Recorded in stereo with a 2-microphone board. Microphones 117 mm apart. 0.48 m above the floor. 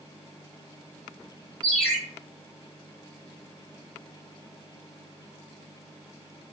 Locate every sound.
1.6 s a ringtone: centre (ahead or behind), 1.9 m